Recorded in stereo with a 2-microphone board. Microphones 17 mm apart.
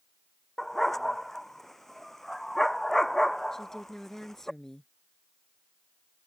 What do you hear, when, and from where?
0.6 s a dog barking: 15° left (ahead or behind)
3.5 s a woman speaking: 20° left (ahead or behind)